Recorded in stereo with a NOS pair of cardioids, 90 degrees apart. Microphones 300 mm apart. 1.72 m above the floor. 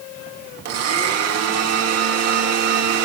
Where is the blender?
60° right, 2 m.